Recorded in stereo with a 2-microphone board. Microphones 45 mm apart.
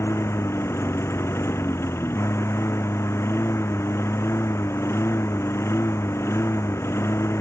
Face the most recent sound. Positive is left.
turn(degrees=85)